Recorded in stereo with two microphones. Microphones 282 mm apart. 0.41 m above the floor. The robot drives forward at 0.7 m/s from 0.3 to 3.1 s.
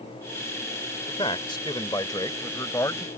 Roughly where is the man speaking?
Centre.